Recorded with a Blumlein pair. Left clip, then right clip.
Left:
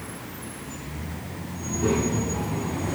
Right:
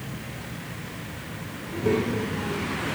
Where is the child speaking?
65° left, 5 m; by 3.0 s 60° left, 4 m.